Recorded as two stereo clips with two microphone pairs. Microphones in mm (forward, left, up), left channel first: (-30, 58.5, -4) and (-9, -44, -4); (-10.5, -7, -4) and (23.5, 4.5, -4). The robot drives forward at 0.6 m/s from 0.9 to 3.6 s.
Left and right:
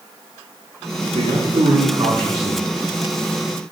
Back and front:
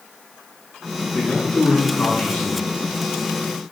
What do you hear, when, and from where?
1.1 s a man speaking: 110° right, 5.5 m; by 2.6 s 120° right, 6 m